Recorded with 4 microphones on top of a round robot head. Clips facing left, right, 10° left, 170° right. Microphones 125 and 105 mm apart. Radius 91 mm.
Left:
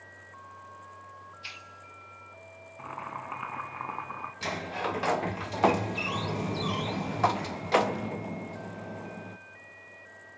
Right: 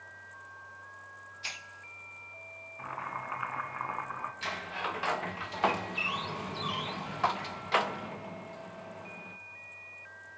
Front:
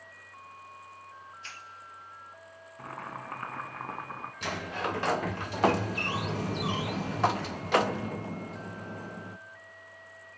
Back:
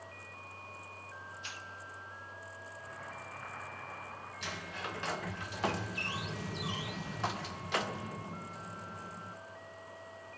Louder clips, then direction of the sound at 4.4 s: Left 7 dB, front 10 dB; 40° left.